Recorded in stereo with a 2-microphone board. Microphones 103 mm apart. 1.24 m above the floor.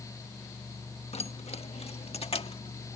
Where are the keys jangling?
80° left; by 3.0 s 70° left (ahead or behind).